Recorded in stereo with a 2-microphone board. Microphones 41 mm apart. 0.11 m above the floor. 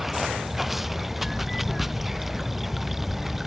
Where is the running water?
5° right (ahead or behind).